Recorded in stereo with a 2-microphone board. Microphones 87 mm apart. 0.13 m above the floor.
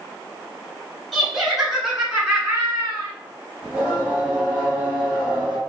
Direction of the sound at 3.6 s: 10° right (ahead or behind).